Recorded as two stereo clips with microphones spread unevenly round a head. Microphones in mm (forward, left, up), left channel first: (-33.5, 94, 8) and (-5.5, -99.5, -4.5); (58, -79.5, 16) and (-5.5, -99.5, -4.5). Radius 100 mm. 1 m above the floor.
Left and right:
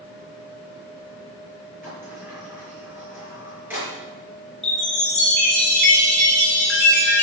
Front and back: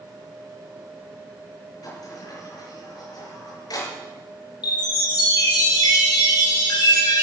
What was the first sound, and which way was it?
A sliding door, straight ahead.